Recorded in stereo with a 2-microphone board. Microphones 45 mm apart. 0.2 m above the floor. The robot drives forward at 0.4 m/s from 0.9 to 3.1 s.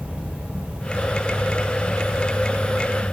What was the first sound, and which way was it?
An insect, 25° right (ahead or behind).